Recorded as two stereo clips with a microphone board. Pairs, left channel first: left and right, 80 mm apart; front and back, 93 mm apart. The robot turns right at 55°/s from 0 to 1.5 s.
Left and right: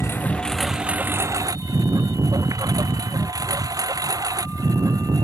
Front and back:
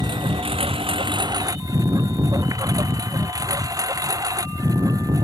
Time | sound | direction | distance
0.0 | a lawn mower | 145° left | ?